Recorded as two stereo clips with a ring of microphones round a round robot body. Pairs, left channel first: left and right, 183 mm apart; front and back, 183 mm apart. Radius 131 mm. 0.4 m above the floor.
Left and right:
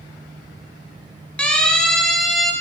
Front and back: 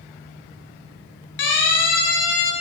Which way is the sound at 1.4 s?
5° left.